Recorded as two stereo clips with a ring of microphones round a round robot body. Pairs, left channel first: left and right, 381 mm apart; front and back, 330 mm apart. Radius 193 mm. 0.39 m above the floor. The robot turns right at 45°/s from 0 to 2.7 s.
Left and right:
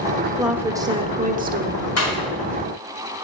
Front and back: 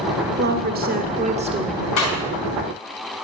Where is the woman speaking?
Straight behind, 1.3 m; by 1.9 s 115° right, 1.3 m.